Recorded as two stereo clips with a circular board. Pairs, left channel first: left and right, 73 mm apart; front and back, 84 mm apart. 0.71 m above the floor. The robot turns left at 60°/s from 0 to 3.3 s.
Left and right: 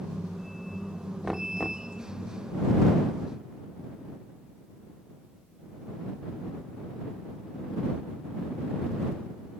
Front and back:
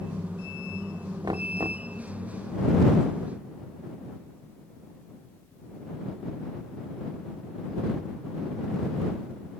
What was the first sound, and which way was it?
Knocking, 175° right.